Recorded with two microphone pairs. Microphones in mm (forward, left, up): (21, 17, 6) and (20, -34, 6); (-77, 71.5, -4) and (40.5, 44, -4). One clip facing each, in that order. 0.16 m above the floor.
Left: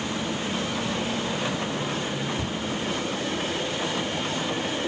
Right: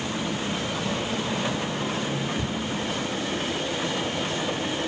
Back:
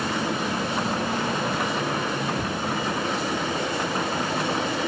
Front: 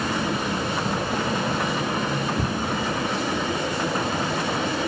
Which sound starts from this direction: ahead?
A cupboard door, at 2.4 s.